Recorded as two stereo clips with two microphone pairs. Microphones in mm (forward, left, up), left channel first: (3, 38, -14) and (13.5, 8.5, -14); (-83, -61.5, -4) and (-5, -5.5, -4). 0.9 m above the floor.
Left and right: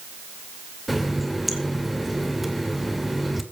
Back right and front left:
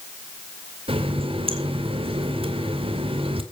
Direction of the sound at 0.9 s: 20° left.